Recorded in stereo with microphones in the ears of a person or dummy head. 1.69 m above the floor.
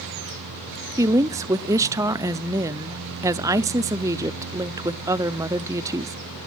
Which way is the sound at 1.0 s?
15° right (ahead or behind).